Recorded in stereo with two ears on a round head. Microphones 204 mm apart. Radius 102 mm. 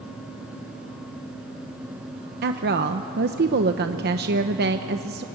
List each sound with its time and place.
2.4 s a woman speaking: 45° right (ahead or behind), 0.9 m